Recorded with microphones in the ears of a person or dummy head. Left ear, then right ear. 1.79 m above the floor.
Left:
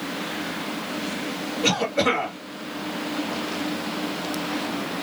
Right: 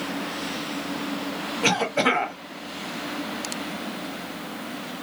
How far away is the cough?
About 1.3 m.